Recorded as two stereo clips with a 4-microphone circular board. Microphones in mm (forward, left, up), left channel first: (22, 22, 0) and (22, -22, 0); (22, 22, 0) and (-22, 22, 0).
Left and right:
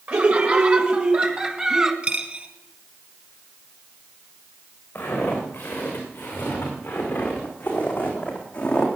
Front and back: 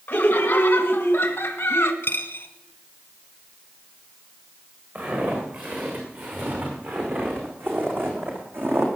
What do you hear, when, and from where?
0.1 s laughter: 50° right, 2 m; by 1.9 s 25° right, 1.5 m
2.0 s a dropped coin: 35° right, 2.5 m
5.0 s footsteps: 135° left, 6.5 m; by 8.9 s 155° left, 4 m